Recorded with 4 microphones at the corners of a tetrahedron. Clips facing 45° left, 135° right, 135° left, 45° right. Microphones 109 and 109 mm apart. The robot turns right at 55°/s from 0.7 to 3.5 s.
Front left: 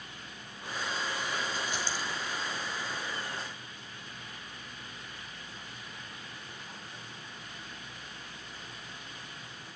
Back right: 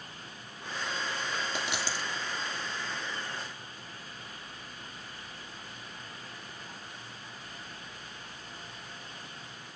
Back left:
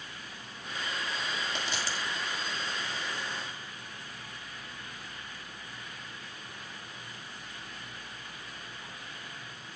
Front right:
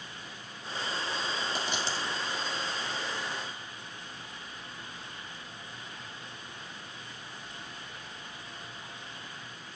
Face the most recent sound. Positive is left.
turn(degrees=-20)